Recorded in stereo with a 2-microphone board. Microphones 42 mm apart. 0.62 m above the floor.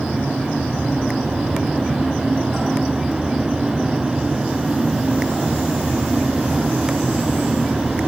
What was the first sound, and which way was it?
Only background noise.